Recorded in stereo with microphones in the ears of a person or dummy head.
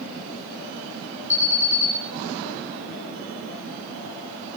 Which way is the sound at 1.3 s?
15° left (ahead or behind).